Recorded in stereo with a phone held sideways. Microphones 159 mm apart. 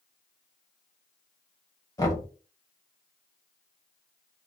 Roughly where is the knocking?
Centre.